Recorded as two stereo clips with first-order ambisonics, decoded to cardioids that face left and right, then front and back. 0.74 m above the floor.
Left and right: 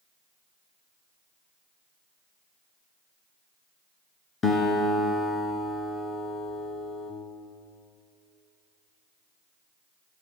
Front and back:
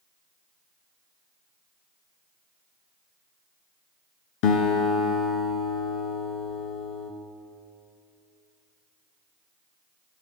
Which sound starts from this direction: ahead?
A guitar, at 4.4 s.